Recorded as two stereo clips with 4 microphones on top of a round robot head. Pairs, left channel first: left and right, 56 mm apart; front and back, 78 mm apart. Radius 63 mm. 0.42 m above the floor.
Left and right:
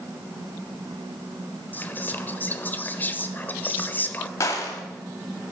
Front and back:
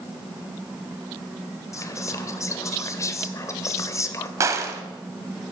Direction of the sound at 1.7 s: 40° left.